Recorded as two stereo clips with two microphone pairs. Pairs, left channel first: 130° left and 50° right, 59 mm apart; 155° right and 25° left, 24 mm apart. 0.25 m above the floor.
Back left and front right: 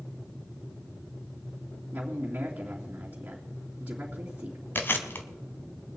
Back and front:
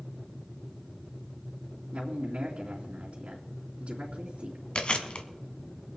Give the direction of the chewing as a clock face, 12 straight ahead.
6 o'clock.